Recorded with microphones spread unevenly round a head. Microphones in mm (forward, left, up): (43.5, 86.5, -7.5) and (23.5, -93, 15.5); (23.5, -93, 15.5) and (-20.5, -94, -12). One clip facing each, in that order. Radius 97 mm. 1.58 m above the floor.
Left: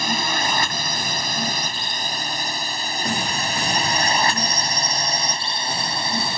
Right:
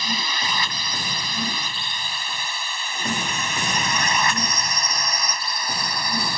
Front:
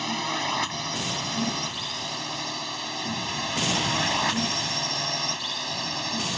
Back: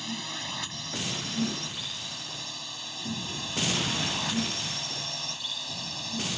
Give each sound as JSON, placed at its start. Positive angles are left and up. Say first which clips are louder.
{"t": 0.0, "sound": "a drone", "louder": "left 5 dB, front 9 dB", "azimuth_deg": 40}